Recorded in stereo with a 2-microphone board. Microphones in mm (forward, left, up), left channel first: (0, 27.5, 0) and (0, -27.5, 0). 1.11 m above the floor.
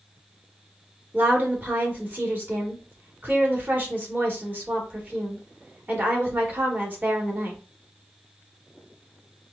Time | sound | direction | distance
1.1 | a woman speaking | 30° right (ahead or behind) | 1.3 m